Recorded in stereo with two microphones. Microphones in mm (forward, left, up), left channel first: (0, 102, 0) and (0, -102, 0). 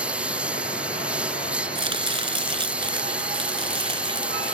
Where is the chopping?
25° right (ahead or behind).